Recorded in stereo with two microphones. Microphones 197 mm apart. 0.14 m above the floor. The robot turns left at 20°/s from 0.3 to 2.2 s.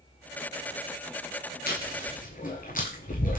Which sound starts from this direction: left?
Chewing, at 1.7 s.